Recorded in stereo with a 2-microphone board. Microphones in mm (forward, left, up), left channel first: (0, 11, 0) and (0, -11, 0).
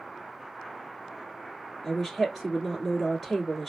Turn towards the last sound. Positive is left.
turn(degrees=10)  # may be behind; listen again after turning